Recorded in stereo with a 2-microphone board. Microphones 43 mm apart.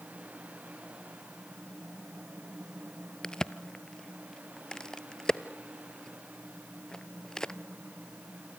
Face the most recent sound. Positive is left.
turn(degrees=15)  # may be behind; listen again after turning